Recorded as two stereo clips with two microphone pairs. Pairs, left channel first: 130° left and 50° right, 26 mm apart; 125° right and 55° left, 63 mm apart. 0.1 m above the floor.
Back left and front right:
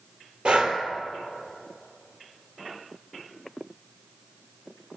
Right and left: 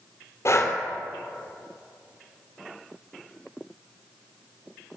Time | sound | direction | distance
0.5 | breathing | 90° right | 2.5 m